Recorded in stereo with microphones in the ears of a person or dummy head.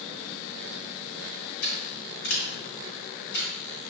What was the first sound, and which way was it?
Scissors, 55° left (ahead or behind).